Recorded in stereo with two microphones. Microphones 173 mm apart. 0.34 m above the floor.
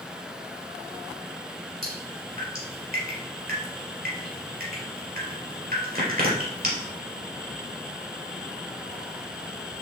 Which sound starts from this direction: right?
Dripping, at 1.8 s.